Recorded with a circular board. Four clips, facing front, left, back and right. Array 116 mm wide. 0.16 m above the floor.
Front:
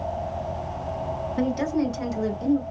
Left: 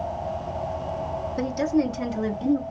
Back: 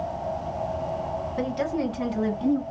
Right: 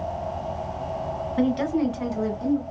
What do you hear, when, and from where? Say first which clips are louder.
1.4 s a woman speaking: right 1 dB, front 3 dB; 90° right, 1.3 m; by 2.6 s 135° left, 1.3 m